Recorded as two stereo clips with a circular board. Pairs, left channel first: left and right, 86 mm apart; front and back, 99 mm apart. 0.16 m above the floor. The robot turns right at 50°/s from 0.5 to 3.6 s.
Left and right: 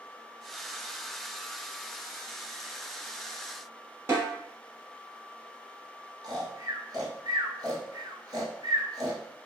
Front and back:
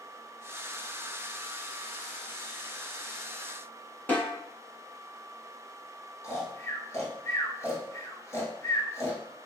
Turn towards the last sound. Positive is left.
turn(degrees=-55)